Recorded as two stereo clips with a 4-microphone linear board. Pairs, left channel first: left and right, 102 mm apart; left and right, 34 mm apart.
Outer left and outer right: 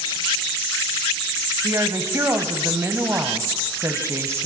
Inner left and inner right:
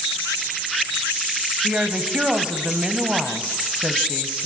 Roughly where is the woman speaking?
Right.